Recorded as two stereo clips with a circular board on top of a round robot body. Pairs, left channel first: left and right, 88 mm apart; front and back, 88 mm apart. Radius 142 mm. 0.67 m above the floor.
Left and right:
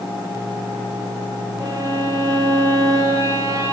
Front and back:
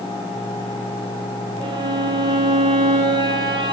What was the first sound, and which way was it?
A violin, 150° right.